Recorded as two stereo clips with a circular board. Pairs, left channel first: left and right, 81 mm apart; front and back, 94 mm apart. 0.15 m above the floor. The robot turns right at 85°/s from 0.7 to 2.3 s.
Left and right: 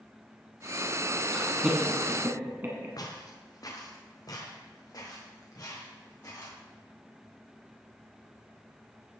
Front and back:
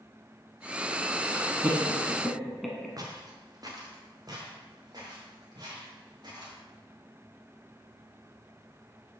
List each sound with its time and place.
1.3 s laughter: 175° right, 1.4 m; by 2.9 s 90° right, 1.4 m
3.0 s footsteps: 130° left, 2.5 m; by 6.6 s 135° left, 5.5 m